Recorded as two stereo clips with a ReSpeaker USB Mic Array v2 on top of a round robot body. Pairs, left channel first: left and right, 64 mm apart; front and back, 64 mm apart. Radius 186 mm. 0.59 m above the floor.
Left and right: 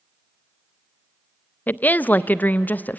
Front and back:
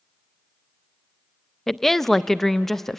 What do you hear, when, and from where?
1.7 s a woman speaking: 80° left, 0.6 m